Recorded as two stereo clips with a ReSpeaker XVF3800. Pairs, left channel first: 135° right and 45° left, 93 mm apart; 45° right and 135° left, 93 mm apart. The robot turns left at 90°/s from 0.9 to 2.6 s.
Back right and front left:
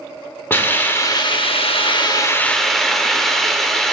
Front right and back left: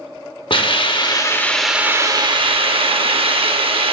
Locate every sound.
0.5 s a hiss: 70° right, 0.7 m; by 3.9 s 140° left, 0.7 m